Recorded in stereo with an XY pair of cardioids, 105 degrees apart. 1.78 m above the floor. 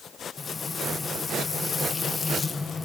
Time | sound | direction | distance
0.4 | frying | 30° left | 2.0 m